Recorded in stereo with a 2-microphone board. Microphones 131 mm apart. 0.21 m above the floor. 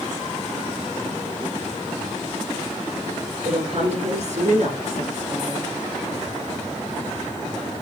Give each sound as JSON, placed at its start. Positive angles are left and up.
{"t": 3.5, "sound": "a woman speaking", "side_deg": -55, "distance_m": 3.0}